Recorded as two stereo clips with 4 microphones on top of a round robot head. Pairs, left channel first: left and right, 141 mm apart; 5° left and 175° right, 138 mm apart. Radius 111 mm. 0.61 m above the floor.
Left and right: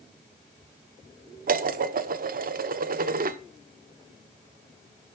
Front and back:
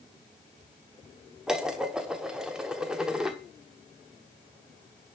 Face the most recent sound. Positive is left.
turn(degrees=-90)